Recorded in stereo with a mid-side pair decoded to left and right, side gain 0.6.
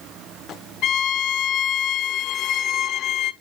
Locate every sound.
0.8 s a violin: 60° left, 1.1 m